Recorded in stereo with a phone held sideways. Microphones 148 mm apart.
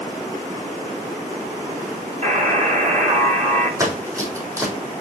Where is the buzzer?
55° right (ahead or behind), 4.5 m.